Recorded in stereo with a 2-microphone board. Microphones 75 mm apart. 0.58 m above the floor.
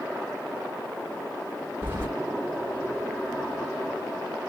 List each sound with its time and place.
1.8 s keys jangling: 30° right (ahead or behind), 2.0 m